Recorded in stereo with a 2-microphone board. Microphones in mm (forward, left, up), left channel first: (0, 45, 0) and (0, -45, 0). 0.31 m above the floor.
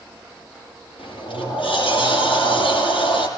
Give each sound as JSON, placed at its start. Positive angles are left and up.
{"t": 1.0, "sound": "a sliding door", "side_deg": 75, "distance_m": 6.0}